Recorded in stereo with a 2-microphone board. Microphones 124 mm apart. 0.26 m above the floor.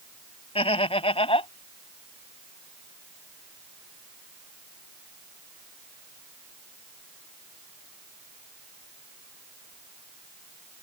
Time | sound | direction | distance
0.6 | laughter | 50° left (ahead or behind) | ?